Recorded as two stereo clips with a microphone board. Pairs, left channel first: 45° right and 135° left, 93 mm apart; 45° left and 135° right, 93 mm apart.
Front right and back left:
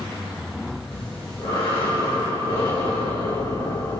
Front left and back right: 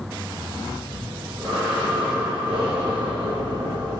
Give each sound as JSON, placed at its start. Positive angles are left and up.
{"t": 0.9, "sound": "breathing", "azimuth_deg": -55, "distance_m": 4.5}